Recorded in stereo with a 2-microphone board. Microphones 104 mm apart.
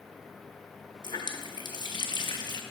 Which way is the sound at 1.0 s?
45° left (ahead or behind).